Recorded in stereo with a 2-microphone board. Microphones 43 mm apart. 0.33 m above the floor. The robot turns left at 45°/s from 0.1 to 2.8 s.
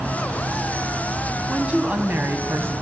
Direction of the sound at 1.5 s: 20° right.